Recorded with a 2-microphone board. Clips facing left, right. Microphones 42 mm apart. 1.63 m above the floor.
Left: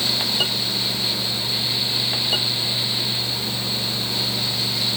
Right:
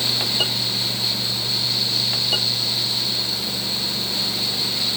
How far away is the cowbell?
I don't hear a cowbell.